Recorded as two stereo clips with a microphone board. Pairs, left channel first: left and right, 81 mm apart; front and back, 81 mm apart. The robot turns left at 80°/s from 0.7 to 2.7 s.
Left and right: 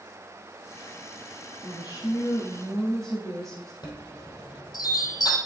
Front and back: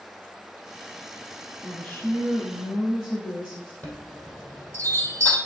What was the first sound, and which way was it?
A woman speaking, 90° left.